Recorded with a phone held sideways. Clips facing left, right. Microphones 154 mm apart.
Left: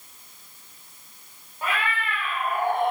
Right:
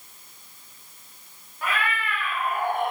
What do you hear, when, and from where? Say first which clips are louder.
1.6 s a cat meowing: even; 30° left (ahead or behind), 2.5 m